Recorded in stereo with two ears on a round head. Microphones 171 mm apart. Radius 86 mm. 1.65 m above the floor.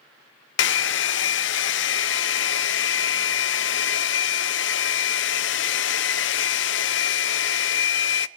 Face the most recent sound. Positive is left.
turn(degrees=65)  # may be behind; listen again after turning